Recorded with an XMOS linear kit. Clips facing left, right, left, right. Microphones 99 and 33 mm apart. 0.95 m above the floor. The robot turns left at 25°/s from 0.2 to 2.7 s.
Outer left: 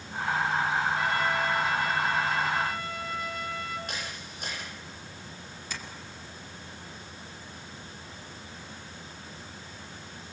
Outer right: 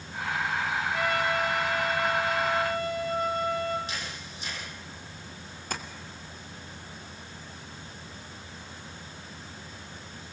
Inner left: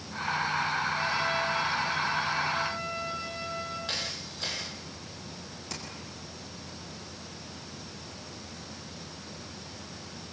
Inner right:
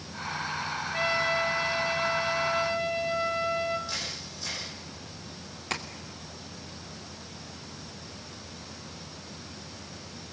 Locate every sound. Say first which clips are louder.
0.9 s a trumpet: even, inner right 2 dB; 95° right, 8 m; by 3.8 s 140° right, 8 m
3.9 s a camera shutter: even, inner left 1 dB; 55° left (ahead or behind), 10 m
5.7 s tapping: outer right 6 dB, inner right 9 dB; 50° right (ahead or behind), 2.5 m